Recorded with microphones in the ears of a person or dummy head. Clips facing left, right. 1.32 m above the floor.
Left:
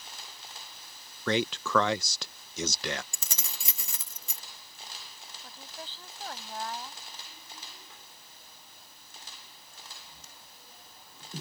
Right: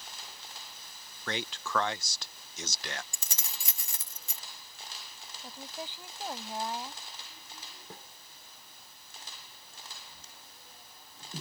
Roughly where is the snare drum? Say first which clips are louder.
Right 7 dB; right.